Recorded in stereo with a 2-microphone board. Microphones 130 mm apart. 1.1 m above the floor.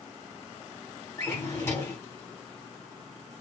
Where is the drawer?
25° left (ahead or behind), 1.3 m.